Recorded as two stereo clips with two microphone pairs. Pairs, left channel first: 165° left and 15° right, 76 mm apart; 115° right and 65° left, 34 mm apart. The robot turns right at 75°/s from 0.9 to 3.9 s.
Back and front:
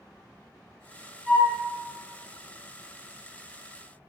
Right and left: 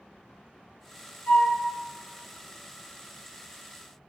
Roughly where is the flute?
Behind right.